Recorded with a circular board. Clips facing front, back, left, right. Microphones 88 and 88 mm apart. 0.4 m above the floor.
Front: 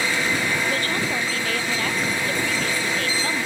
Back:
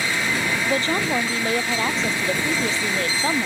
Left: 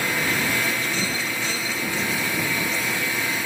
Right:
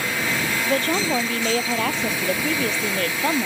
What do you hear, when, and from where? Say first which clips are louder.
0.7 s a woman speaking: back 2 dB, right 5 dB; 115° right